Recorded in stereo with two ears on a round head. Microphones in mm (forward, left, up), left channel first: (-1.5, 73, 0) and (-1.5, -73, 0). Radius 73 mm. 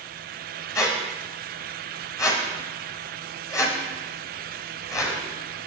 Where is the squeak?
20° left (ahead or behind), 0.9 m.